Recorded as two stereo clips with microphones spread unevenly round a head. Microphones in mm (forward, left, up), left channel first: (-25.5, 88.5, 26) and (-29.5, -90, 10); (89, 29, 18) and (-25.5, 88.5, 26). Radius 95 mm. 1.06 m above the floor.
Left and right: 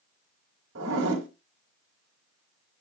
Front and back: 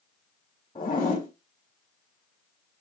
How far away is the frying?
No frying in this recording.